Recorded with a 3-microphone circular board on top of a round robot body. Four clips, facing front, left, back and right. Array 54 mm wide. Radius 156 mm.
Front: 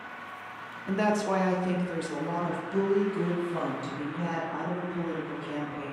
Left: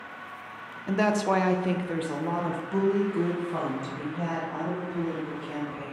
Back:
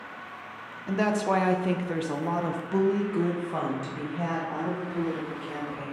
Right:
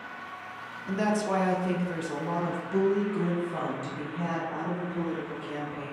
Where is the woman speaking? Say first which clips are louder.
Left 3 dB, back 1 dB; 90° left, 0.9 m; by 5.9 s 175° left, 2.5 m.